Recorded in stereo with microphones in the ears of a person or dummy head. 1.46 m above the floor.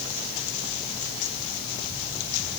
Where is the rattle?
I don't hear a rattle.